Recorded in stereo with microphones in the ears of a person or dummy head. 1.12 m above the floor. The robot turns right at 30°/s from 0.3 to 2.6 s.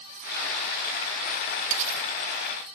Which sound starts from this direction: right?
Cutlery clinking, at 1.7 s.